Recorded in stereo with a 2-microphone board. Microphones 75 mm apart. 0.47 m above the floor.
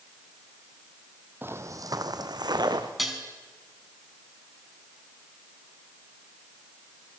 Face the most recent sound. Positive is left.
turn(degrees=0)  # may be behind; listen again after turning